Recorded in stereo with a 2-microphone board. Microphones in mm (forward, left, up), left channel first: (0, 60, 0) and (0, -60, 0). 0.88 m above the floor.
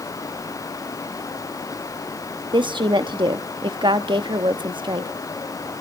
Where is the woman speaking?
40° right (ahead or behind), 1.0 m.